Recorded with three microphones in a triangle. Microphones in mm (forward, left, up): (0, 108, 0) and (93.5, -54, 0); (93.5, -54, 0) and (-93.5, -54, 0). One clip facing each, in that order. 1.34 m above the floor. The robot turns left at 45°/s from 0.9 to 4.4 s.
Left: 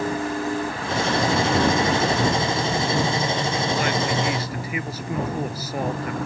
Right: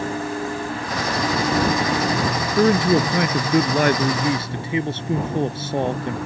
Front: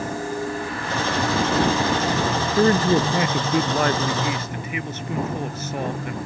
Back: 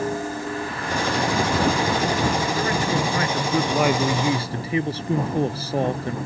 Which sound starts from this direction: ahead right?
A man speaking, at 2.6 s.